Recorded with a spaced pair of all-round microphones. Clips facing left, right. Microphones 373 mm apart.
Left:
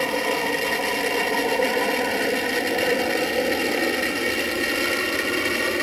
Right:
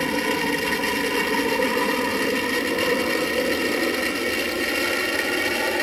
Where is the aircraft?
30° right (ahead or behind); by 5.8 s 5° left (ahead or behind).